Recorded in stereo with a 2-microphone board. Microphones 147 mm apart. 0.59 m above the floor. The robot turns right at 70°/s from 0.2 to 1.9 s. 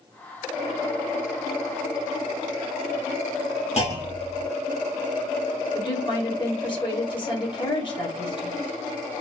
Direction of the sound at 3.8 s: 45° left (ahead or behind).